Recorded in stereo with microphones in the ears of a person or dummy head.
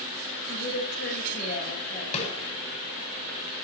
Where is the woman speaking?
65° left (ahead or behind), 3 m; by 2.0 s 30° left (ahead or behind), 3 m.